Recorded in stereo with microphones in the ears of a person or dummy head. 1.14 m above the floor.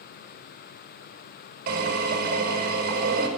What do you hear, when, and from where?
1.7 s a drill: 50° right (ahead or behind), 5.5 m